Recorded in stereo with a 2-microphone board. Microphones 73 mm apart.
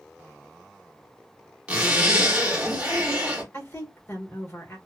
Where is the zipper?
20° right (ahead or behind), 1.0 m.